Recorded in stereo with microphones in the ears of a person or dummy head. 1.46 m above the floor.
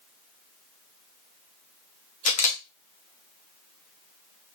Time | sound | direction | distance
2.2 | a camera shutter | 40° left (ahead or behind) | 0.8 m